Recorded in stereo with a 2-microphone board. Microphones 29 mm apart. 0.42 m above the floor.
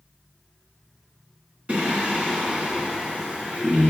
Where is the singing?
50° right (ahead or behind), 2.5 m.